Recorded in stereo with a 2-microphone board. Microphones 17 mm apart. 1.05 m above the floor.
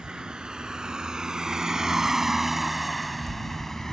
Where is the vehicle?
60° right (ahead or behind); by 3.9 s 25° left (ahead or behind).